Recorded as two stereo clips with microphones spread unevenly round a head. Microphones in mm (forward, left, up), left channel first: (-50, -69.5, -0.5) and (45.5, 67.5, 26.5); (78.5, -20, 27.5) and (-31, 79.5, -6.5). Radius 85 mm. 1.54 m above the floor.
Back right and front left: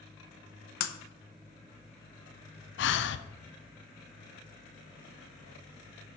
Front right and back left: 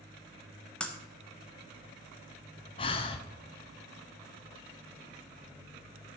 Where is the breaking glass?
110° right, 0.7 m.